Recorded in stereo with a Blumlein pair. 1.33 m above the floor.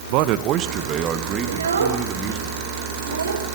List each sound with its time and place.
0.1 s a man speaking: 45° right, 1.3 m; by 2.5 s 20° right, 4.5 m
1.5 s a child speaking: 70° right, 3.5 m